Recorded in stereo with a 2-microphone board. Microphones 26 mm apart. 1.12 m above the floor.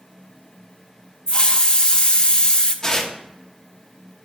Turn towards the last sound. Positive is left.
turn(degrees=20)  # may be behind; listen again after turning